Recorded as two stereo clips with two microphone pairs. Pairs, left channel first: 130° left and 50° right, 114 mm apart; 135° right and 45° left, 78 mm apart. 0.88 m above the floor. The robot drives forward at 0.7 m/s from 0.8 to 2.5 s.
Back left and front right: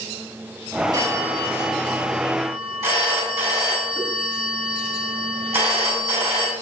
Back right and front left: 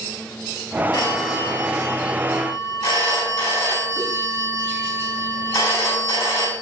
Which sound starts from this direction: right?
A phone ringing, at 0.9 s.